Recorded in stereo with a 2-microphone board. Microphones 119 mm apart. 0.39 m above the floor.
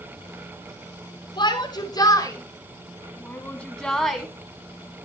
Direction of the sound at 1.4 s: 40° left (ahead or behind).